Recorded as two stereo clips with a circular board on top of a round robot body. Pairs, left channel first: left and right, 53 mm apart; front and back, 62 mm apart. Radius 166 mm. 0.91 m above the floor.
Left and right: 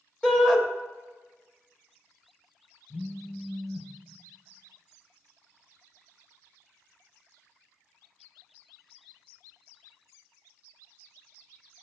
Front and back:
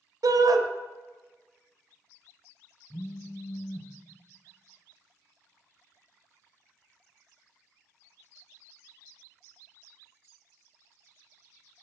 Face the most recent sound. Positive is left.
turn(degrees=60)